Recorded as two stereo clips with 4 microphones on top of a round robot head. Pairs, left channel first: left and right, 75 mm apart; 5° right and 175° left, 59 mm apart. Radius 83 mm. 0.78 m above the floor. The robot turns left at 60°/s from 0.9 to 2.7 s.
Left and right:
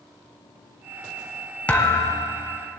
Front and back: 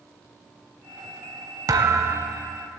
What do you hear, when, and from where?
1.7 s a thud: 160° left, 0.8 m; by 2.5 s 110° left, 0.8 m